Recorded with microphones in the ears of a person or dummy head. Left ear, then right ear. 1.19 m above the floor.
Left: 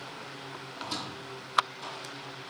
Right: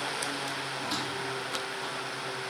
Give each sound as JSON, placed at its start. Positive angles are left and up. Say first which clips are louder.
{"t": 0.7, "sound": "a squeak", "louder": "right 5 dB", "side_deg": -10, "distance_m": 4.0}